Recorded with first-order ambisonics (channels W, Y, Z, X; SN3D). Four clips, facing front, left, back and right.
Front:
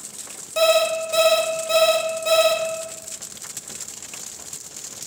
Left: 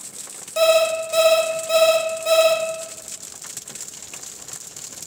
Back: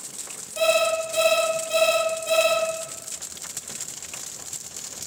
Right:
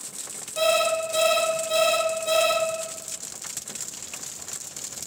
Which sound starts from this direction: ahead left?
An alarm clock, at 0.6 s.